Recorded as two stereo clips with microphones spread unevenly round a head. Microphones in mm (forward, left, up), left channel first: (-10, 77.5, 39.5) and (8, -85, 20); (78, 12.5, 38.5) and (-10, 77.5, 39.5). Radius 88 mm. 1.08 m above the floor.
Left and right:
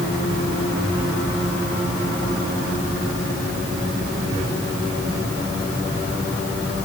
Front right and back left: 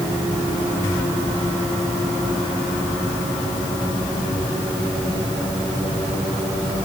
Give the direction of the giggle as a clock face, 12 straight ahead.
No giggle in this recording.